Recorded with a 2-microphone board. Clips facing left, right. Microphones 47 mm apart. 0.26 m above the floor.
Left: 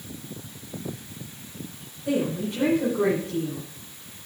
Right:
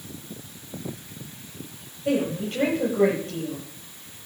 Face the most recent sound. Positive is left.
turn(degrees=-50)  # may be behind; listen again after turning